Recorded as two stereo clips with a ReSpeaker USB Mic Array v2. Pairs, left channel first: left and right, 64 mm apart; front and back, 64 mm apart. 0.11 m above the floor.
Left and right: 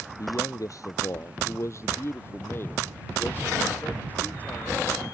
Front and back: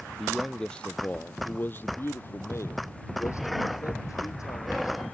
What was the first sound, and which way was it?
A man speaking, 90° left.